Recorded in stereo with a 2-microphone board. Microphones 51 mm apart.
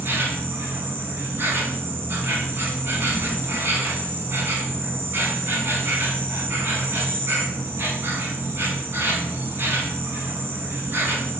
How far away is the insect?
About 0.9 m.